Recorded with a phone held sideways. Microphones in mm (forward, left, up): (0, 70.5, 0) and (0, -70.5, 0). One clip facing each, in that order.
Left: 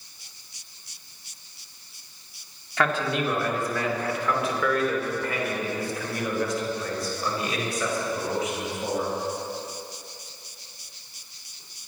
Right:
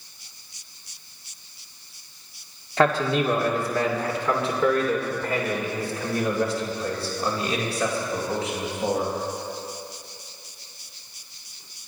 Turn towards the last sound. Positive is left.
turn(degrees=-30)  # may be behind; listen again after turning